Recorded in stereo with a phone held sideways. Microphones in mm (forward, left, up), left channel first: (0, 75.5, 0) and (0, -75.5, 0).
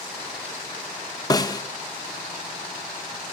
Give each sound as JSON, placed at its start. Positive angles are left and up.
{"t": 1.3, "sound": "a snare drum", "side_deg": 25, "distance_m": 0.5}